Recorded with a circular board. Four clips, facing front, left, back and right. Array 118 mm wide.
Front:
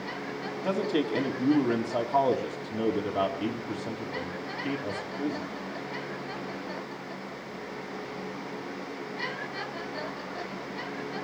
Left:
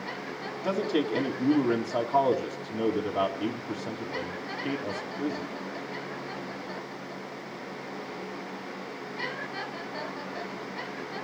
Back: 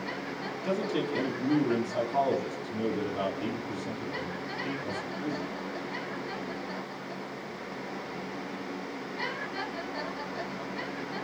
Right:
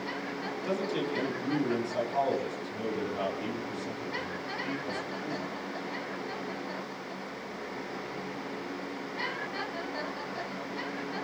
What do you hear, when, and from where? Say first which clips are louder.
0.6 s a man speaking: left 5 dB, front 3 dB; 35° left, 5.5 m